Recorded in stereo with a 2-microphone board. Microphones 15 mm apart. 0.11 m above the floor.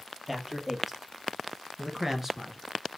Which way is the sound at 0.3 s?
20° right (ahead or behind).